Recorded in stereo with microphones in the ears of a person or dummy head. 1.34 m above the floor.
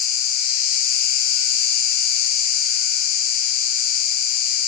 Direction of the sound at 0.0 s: 55° left (ahead or behind).